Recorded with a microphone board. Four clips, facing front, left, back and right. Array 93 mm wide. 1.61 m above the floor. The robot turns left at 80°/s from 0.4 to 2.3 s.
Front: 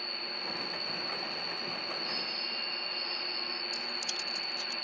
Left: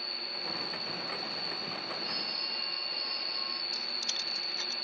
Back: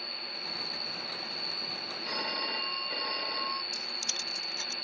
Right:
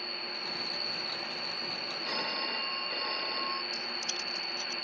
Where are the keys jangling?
135° left.